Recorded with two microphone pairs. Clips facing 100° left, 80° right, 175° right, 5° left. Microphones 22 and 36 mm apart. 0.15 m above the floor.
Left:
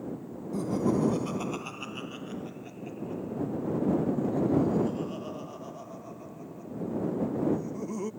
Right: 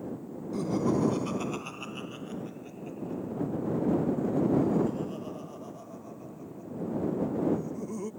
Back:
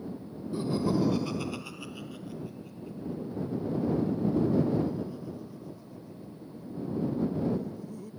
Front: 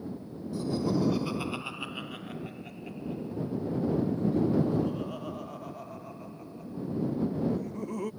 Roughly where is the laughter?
Behind right.